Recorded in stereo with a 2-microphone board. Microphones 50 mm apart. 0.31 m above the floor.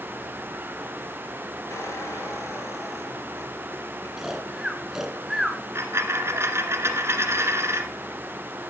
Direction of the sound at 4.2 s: 10° right (ahead or behind).